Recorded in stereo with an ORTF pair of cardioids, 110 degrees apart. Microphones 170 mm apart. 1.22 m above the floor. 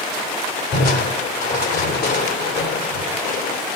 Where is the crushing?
65° left, 3 m.